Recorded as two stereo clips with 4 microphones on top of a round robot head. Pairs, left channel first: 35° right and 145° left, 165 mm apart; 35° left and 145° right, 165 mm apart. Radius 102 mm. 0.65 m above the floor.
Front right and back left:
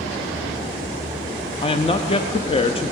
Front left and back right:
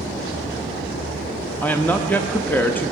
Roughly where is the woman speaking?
Ahead right.